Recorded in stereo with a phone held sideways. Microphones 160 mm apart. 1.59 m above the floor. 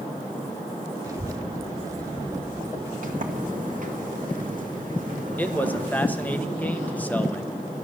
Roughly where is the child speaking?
Right.